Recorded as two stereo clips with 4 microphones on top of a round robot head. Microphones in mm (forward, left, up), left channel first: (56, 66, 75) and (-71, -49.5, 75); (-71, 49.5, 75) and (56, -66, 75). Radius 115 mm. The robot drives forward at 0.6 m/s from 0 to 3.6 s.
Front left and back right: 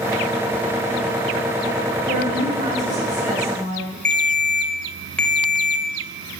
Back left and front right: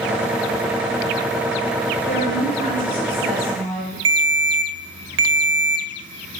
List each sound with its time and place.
2.1 s a woman speaking: 175° left, 3 m
4.0 s a ringtone: 45° right, 0.6 m